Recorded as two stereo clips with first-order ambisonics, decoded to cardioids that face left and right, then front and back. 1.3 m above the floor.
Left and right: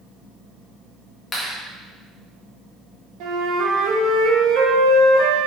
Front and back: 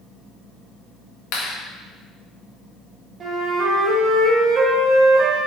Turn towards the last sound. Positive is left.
turn(degrees=-115)